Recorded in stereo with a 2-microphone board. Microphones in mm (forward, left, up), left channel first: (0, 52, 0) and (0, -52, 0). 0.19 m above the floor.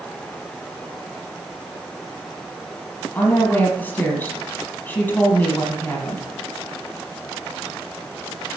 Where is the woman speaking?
15° left (ahead or behind), 5.5 m.